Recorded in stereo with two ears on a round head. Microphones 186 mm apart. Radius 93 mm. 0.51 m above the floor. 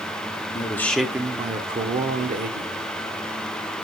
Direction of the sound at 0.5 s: 20° left (ahead or behind).